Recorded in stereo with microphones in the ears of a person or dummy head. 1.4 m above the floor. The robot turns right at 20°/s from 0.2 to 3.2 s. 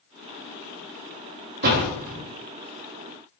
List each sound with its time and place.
1.6 s a door slam: 55° right (ahead or behind), 1.6 m; by 2.2 s 45° right (ahead or behind), 1.6 m